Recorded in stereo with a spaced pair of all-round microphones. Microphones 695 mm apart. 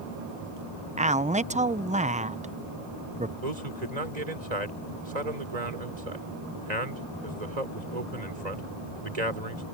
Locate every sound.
1.0 s a man speaking: 10° right (ahead or behind)
3.4 s a man speaking: 70° right (ahead or behind)